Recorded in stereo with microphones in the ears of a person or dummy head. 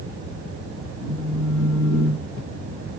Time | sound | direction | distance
1.0 | a phone buzzing | 55° left (ahead or behind) | 0.5 m